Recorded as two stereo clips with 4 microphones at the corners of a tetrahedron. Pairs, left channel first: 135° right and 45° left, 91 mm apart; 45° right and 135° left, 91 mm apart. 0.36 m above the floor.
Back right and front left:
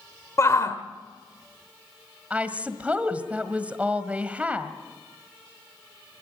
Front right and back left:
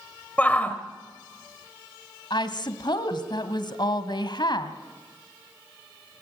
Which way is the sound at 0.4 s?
110° right.